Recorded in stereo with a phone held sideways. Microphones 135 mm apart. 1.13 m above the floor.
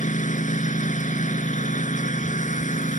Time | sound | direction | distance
0.0 | a lawn mower | 75° left (ahead or behind) | ?